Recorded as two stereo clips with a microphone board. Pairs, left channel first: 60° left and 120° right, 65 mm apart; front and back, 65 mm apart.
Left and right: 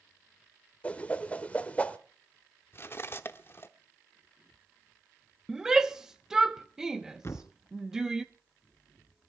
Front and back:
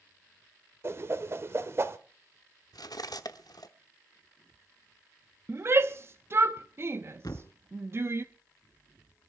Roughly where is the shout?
Behind.